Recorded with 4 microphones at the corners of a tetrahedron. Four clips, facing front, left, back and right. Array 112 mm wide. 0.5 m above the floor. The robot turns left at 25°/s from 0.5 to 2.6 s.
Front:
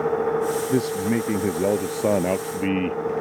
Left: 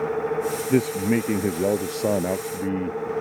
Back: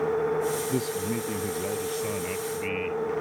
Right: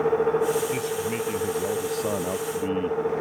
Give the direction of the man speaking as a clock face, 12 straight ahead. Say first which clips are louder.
Left 6 dB, front 6 dB; 10 o'clock.